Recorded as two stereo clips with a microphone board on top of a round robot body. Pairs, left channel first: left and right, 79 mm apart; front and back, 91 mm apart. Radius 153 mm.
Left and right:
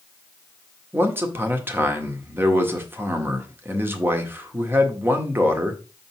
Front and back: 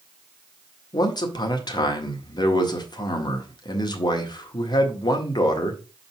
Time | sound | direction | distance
0.9 | a man speaking | 30° right | 1.7 m